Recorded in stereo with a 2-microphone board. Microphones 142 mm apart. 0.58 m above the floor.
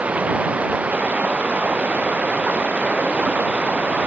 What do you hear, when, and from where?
0.0 s running water: 10° right (ahead or behind)